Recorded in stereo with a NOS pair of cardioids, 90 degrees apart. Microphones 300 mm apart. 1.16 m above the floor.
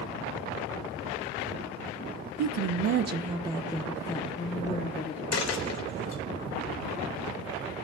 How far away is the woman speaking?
About 0.6 m.